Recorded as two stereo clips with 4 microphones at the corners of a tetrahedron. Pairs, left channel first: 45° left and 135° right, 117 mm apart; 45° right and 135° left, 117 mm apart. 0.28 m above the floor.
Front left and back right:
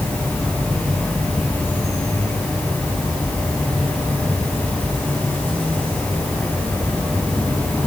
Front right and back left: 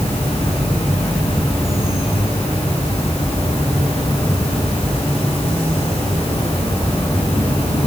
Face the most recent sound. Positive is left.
turn(degrees=-25)